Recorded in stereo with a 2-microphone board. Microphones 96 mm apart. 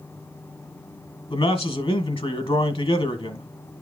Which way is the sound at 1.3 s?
70° left (ahead or behind).